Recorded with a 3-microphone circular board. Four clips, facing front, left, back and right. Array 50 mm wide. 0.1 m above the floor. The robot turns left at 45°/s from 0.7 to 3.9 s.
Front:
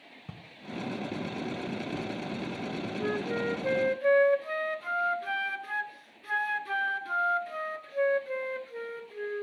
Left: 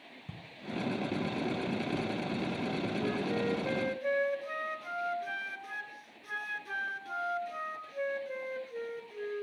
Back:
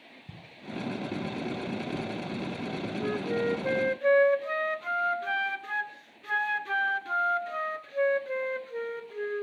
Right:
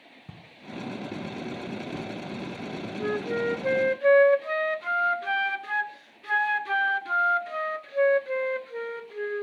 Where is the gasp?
No gasp in this recording.